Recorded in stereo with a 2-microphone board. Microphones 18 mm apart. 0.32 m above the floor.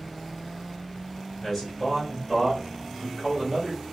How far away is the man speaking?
About 1.7 m.